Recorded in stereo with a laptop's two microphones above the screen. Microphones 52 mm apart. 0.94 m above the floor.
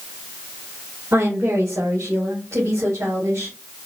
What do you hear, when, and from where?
1.1 s a woman speaking: 70° right (ahead or behind), 2.0 m; by 3.6 s 85° right, 3 m